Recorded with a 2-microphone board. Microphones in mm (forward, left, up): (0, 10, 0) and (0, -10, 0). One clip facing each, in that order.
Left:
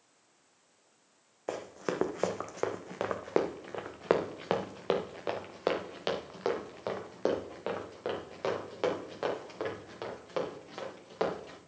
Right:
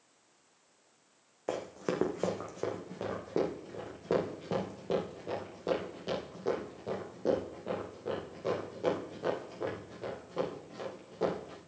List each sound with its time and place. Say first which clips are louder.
1.5 s running footsteps: right 1 dB; centre (ahead or behind), 1.1 m; by 11.6 s 80° left, 5 m